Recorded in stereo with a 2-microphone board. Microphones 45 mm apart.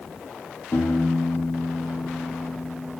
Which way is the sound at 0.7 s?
85° left.